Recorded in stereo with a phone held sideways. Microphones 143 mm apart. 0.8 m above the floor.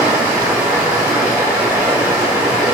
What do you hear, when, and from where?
0.0 s running water: 15° right (ahead or behind), 2.0 m